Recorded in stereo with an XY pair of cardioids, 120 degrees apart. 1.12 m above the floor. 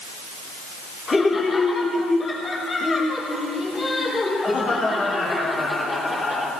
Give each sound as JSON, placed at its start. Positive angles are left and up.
{"t": 1.1, "sound": "laughter", "azimuth_deg": 30, "distance_m": 3.5}